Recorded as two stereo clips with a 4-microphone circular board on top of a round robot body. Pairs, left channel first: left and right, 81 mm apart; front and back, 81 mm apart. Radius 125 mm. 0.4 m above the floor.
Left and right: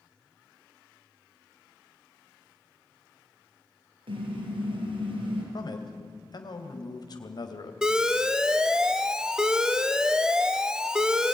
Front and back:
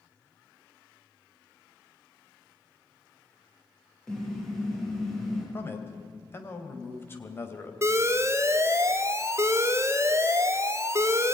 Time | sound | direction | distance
4.1 | a car horn | 85° right | 6.5 m
5.5 | a man speaking | 60° left | 2.5 m
7.8 | an alarm | 165° right | 1.3 m